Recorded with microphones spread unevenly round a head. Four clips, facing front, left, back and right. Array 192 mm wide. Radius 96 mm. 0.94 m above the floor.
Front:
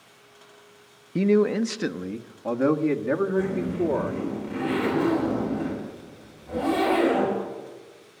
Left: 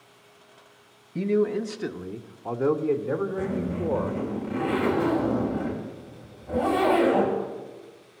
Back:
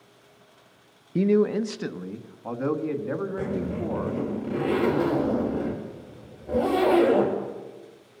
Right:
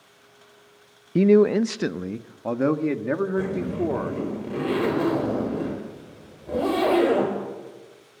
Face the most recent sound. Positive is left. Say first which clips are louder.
# right 3 dB, front 4 dB
turn(degrees=-140)